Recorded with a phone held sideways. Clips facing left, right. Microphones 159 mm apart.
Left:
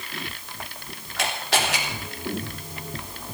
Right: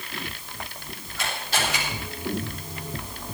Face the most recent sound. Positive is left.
turn(degrees=80)